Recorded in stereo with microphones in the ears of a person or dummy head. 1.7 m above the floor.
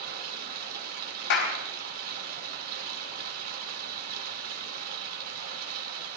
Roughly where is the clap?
Left.